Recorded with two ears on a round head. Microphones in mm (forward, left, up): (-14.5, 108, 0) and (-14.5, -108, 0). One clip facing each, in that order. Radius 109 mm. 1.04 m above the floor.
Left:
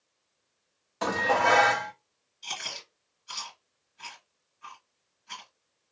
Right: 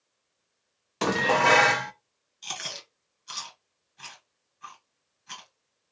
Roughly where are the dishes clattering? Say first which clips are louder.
Right 3 dB; right.